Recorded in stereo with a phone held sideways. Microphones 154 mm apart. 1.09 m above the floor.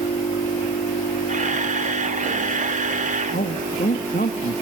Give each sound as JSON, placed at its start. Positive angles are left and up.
{"t": 1.3, "sound": "a camera shutter", "side_deg": -55, "distance_m": 1.9}
{"t": 3.3, "sound": "a man speaking", "side_deg": 75, "distance_m": 1.6}